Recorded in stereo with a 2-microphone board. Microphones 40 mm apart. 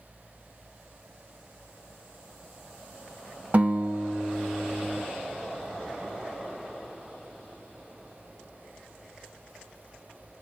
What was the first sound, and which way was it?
A guitar, 45° right (ahead or behind).